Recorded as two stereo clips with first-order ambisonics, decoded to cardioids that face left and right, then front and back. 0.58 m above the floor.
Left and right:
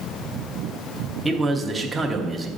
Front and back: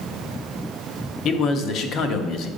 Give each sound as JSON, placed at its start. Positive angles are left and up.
{"t": 1.2, "sound": "a man speaking", "azimuth_deg": -10, "distance_m": 0.7}